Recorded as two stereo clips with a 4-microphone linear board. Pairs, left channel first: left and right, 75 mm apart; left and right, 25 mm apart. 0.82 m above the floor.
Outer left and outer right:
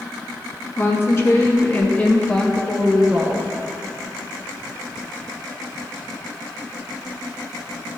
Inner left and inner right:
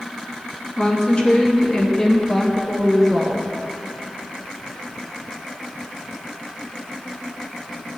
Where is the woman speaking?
35° left (ahead or behind), 1.4 m; by 3.5 s 20° right (ahead or behind), 0.9 m.